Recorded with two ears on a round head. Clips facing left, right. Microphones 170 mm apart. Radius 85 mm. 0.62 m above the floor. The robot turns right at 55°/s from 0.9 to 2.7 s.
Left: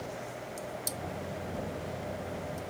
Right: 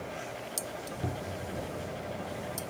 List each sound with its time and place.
1.0 s a cupboard door: 60° right (ahead or behind); by 1.5 s 40° right (ahead or behind)